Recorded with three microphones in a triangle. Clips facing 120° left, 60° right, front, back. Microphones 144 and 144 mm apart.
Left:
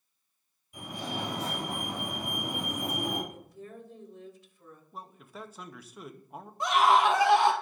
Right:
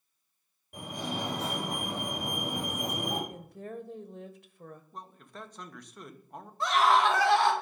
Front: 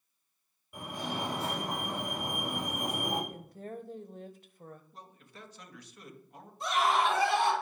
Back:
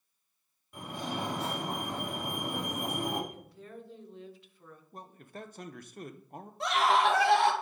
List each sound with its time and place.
0.7 s a fire alarm: 80° right, 5 m
3.3 s a woman speaking: 40° right, 0.9 m
4.9 s a man speaking: 155° right, 0.7 m
6.6 s a scream: 165° right, 1.9 m